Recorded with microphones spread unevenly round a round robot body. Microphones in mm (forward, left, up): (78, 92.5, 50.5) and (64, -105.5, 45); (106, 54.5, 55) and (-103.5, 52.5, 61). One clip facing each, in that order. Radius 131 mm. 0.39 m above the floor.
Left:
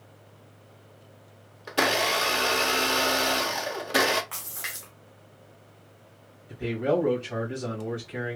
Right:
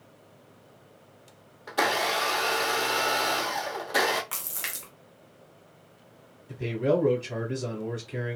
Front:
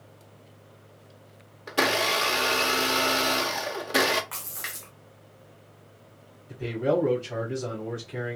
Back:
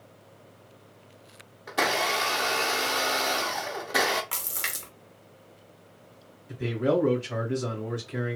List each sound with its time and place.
1.7 s a blender: 35° left, 0.9 m
4.3 s a splash: 135° right, 0.8 m
6.5 s a man speaking: 95° right, 1.8 m